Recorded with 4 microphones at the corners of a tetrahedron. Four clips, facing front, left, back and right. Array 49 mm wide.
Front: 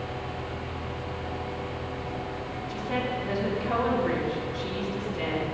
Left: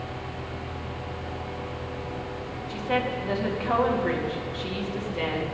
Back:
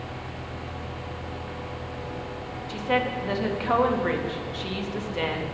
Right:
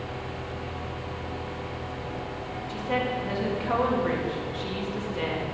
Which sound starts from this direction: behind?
A woman speaking, at 2.7 s.